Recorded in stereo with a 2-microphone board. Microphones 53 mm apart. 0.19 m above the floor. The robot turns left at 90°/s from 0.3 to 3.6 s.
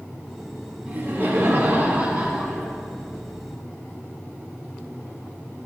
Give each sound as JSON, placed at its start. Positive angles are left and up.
{"t": 0.9, "sound": "laughter", "azimuth_deg": -45, "distance_m": 2.5}